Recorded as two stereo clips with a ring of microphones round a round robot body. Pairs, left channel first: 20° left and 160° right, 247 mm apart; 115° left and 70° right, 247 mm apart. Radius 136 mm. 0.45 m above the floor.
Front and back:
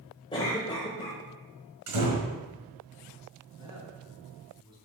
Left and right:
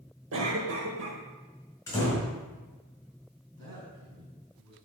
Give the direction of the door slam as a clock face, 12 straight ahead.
6 o'clock.